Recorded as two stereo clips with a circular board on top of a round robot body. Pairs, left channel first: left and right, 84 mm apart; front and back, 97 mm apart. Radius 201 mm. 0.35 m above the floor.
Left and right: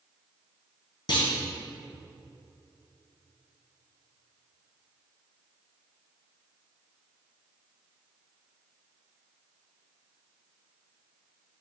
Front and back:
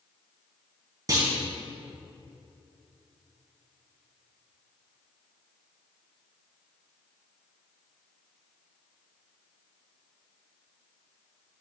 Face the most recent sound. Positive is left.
turn(degrees=125)